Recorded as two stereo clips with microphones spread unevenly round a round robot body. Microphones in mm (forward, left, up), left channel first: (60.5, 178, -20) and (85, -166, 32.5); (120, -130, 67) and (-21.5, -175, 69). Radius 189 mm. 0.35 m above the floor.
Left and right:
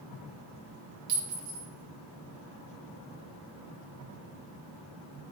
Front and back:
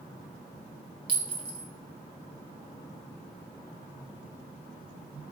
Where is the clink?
120° right, 0.9 m.